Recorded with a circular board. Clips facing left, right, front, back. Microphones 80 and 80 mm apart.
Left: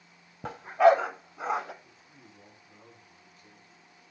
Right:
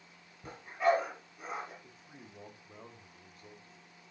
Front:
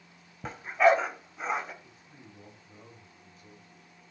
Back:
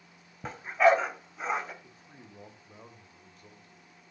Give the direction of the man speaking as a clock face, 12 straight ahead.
5 o'clock.